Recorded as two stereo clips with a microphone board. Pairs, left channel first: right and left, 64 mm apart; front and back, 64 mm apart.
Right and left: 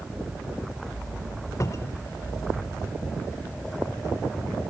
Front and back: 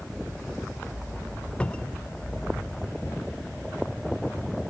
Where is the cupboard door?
70° right, 0.6 m.